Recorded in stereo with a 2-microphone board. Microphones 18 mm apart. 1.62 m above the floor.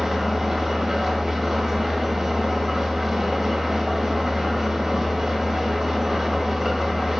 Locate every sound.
0.0 s an engine running: 30° right (ahead or behind), 2 m